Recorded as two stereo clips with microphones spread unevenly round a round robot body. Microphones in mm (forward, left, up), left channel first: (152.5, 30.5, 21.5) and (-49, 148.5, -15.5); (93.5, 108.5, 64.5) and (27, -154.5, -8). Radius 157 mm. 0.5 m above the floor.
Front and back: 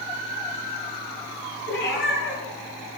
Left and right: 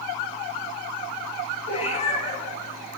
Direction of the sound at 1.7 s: 10° left.